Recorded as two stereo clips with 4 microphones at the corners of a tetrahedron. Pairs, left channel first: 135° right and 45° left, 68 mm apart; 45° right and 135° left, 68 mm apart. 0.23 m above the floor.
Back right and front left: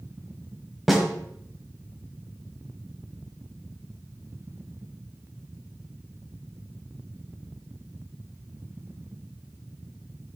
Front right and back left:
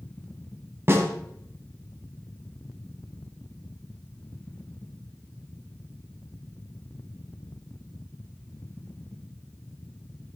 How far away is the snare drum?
About 1.6 m.